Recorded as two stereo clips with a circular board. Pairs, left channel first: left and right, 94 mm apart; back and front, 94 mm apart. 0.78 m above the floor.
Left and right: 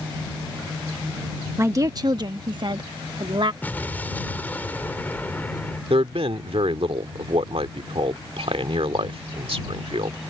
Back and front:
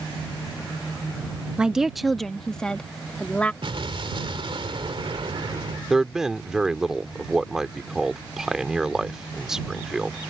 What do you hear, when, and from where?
1.6 s a woman speaking: 65° right; by 3.5 s 105° right
3.6 s an explosion: 20° left
5.9 s a man speaking: 85° right